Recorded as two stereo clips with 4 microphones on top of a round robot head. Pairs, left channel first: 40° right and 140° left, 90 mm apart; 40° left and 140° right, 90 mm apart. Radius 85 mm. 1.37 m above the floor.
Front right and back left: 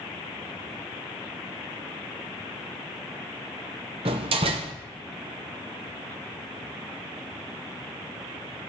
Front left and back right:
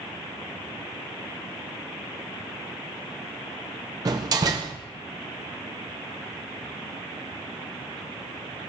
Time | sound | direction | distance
4.0 | a door slam | 170° left | 0.6 m